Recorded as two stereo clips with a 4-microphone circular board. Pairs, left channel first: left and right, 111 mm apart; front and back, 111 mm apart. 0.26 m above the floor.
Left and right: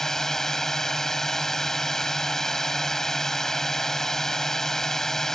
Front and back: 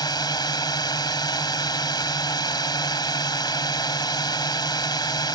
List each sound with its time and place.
0.0 s a drone: 5° left